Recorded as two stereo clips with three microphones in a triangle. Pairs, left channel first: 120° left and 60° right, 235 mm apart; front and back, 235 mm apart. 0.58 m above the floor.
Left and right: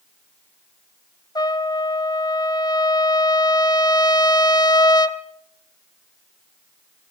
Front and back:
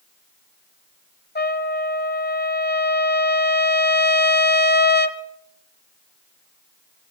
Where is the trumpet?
45° left, 1.2 m.